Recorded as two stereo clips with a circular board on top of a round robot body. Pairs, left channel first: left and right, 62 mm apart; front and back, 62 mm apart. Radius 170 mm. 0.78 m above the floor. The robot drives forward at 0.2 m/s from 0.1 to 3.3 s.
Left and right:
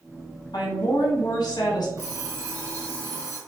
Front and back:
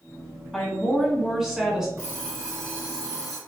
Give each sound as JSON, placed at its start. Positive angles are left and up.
{"t": 0.5, "sound": "a woman speaking", "azimuth_deg": 90, "distance_m": 1.6}
{"t": 2.0, "sound": "an alarm clock", "azimuth_deg": -125, "distance_m": 1.3}